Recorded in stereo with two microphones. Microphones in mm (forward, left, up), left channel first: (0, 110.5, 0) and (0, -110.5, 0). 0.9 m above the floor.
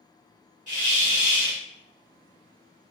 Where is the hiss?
35° right (ahead or behind), 1.3 m.